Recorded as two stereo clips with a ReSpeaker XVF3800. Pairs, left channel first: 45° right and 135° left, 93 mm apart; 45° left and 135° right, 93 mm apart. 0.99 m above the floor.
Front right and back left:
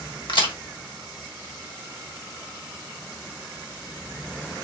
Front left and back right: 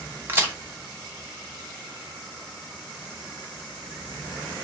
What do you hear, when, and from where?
0.3 s a crack: 70° right, 1.3 m